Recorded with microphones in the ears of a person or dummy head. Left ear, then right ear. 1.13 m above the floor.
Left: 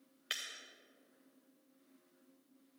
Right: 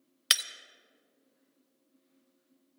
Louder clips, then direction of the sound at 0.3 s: Right 14 dB; 55° right (ahead or behind).